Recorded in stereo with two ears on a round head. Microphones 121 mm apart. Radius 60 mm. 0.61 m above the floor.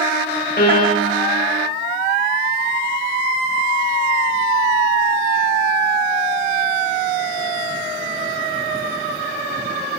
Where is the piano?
75° left (ahead or behind), 1.0 m.